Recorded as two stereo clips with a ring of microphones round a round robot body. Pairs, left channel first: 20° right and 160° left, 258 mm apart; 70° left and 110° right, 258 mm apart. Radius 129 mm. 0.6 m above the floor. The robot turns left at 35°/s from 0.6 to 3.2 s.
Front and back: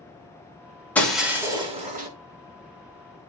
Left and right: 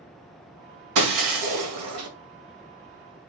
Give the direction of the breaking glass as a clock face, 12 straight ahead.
4 o'clock.